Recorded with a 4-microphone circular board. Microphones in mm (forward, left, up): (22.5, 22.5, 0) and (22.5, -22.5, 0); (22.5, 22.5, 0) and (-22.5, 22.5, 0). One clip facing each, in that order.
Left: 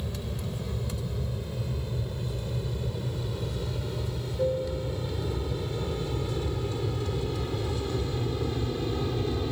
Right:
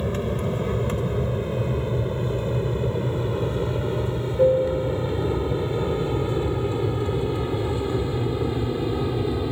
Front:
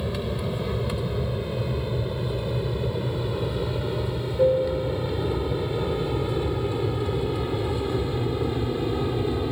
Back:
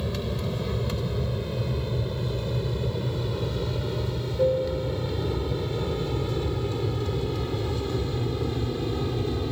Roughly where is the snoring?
I don't hear snoring.